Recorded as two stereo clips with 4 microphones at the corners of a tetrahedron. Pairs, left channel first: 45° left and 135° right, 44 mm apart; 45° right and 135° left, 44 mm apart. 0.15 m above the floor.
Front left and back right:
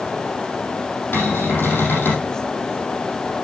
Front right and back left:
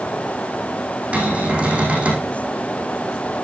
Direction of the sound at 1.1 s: 70° left.